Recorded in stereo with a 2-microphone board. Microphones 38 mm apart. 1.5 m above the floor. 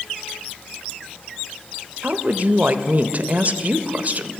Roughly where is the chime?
I don't hear a chime.